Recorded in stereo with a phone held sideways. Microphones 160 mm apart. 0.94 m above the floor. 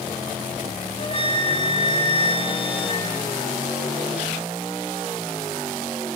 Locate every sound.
1.0 s a flute: 40° left (ahead or behind), 1.9 m